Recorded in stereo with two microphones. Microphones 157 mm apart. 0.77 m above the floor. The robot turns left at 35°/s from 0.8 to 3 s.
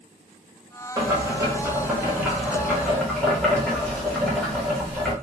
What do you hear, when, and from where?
1.0 s boiling: 20° right (ahead or behind), 0.9 m; by 5.1 s 5° left (ahead or behind), 0.9 m